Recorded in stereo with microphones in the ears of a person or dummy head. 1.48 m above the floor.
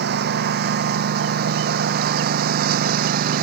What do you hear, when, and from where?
0.0 s a lawn mower: 70° right (ahead or behind); by 3.4 s 60° right (ahead or behind)